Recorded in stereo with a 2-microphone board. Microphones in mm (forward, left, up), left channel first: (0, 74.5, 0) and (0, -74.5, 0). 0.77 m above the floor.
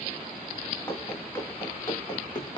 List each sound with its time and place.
0.9 s running footsteps: 20° left (ahead or behind), 4 m; by 2.6 s 30° left (ahead or behind), 2.5 m